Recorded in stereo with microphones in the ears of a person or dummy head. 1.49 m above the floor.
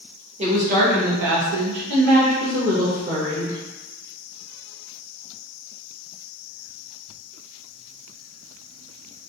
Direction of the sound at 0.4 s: 30° right (ahead or behind).